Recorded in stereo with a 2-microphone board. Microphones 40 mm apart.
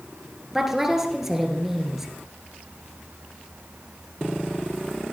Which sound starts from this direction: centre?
A woman speaking, at 0.5 s.